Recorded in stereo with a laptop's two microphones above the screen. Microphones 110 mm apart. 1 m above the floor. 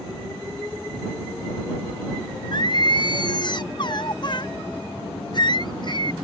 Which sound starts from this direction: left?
Singing, at 2.5 s.